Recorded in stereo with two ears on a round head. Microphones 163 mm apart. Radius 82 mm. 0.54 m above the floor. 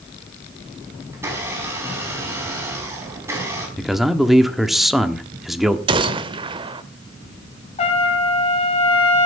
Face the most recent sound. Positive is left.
turn(degrees=35)  # may be behind; listen again after turning